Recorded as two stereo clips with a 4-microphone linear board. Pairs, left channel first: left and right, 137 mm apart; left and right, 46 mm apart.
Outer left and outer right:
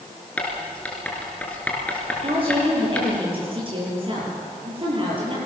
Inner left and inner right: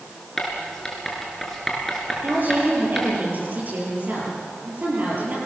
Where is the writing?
10° left (ahead or behind), 4.5 m.